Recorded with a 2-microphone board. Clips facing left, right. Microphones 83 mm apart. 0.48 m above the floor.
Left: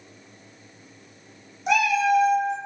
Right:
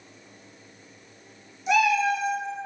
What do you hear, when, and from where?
1.7 s a cat meowing: 55° left (ahead or behind), 0.7 m